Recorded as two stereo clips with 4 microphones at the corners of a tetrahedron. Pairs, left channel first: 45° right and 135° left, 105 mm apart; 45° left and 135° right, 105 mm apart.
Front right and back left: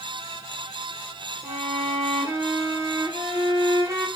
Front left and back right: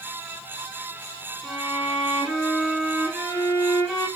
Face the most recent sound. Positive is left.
turn(degrees=150)